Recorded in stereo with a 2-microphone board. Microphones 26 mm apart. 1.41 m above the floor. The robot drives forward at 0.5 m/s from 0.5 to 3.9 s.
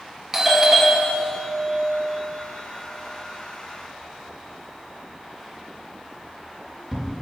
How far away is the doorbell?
About 1.9 m.